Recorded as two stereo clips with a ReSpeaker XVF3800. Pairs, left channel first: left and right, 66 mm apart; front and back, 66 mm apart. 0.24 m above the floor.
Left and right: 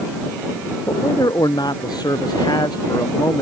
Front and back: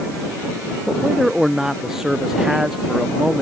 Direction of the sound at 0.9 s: 95° left.